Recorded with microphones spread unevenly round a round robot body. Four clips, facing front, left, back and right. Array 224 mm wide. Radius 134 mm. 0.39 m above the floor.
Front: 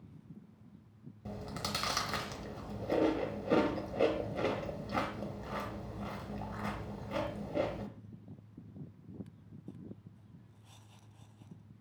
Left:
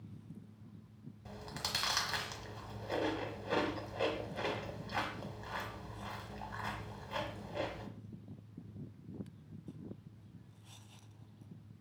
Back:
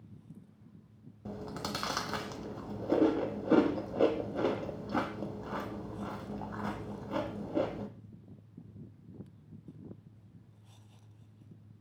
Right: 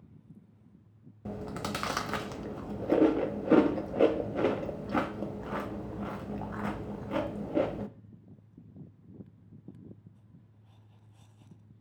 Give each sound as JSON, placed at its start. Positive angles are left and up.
{"t": 1.2, "sound": "chewing", "azimuth_deg": -110, "distance_m": 0.6}